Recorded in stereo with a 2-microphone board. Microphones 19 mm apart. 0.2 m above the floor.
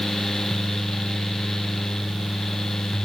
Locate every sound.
Only background noise.